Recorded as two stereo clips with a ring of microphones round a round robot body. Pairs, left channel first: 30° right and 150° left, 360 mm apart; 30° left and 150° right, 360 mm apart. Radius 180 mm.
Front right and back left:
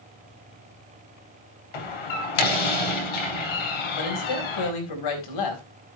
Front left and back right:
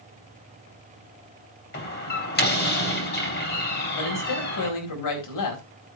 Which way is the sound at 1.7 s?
35° right.